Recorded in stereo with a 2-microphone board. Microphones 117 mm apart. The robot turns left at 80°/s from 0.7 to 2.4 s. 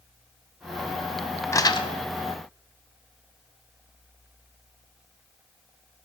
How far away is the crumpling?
About 0.8 m.